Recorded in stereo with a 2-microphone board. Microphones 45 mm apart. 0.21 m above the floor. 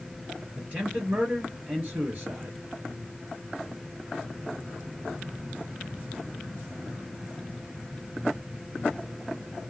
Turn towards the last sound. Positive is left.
turn(degrees=-35)  # may be behind; listen again after turning